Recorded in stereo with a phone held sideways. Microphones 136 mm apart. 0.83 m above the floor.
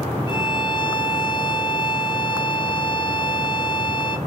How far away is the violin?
About 0.6 m.